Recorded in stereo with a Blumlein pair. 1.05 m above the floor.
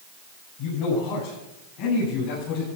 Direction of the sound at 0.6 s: 55° left.